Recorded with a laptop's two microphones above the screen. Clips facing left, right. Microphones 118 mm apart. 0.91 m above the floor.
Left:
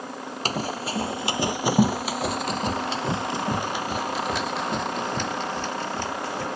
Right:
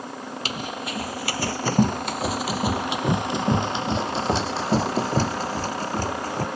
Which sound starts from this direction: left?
Running footsteps, at 0.5 s.